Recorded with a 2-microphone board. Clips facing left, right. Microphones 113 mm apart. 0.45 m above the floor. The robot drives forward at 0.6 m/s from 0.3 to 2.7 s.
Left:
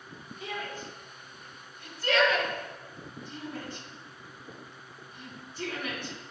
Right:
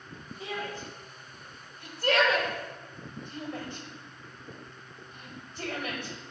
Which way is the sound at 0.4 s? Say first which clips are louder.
Right 1 dB; 55° right (ahead or behind).